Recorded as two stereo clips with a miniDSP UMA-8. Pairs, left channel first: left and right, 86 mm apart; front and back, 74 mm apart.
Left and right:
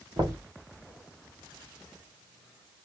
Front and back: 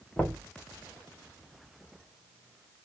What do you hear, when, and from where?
0.2 s knocking: 75° right, 1.4 m